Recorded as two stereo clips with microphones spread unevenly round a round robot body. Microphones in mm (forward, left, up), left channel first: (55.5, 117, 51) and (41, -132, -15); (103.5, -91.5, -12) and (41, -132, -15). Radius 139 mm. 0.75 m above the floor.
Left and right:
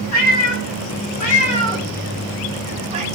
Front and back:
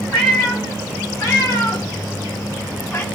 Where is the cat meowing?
85° left, 1.1 m; by 3.0 s 20° right, 1.0 m.